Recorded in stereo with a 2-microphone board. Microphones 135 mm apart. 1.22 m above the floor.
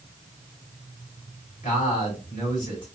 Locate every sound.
1.6 s a man speaking: 70° left (ahead or behind), 2.5 m